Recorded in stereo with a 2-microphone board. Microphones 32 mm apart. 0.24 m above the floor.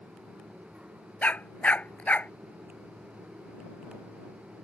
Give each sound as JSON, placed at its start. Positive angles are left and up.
{"t": 1.2, "sound": "a dog barking", "side_deg": 45}